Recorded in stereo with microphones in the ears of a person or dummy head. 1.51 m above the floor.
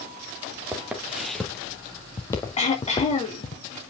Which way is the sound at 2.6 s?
35° left (ahead or behind).